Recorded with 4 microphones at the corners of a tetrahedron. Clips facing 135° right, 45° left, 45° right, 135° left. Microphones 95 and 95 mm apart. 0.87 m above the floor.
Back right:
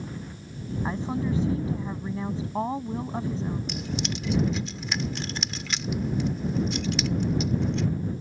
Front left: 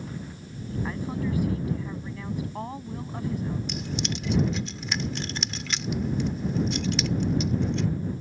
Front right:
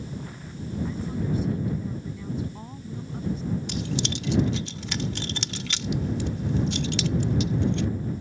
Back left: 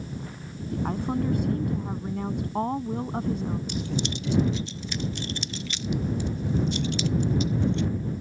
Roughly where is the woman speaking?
Behind.